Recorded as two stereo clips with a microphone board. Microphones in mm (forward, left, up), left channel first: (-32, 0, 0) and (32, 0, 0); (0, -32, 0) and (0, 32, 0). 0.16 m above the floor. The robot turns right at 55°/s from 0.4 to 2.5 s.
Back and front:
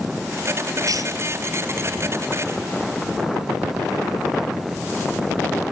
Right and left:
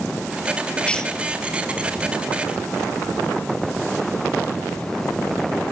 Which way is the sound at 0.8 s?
20° right.